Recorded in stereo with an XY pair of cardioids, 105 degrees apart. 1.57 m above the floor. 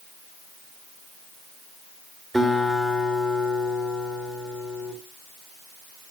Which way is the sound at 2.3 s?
15° right.